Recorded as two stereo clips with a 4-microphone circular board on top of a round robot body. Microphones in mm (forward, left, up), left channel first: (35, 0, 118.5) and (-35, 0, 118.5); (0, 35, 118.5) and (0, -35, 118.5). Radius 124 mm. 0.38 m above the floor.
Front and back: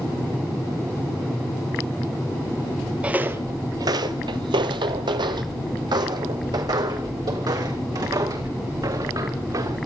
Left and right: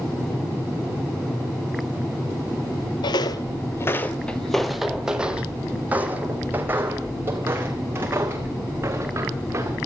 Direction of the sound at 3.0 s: 105° left.